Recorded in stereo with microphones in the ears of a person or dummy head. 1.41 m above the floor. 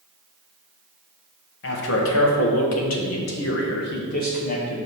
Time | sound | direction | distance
1.6 | a man speaking | 70° left (ahead or behind) | 1.6 m